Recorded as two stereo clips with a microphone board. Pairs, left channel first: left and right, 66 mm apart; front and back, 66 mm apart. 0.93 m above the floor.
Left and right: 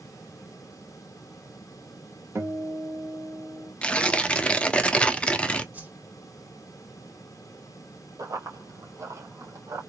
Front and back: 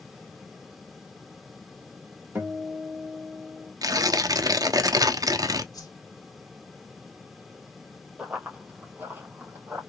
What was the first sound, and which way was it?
A guitar, 130° right.